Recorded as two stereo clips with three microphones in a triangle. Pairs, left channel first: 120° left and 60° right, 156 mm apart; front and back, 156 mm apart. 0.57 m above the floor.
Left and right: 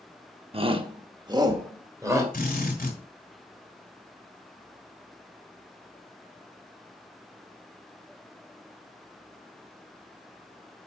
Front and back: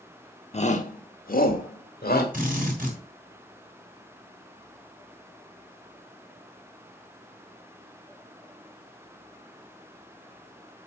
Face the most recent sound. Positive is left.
turn(degrees=150)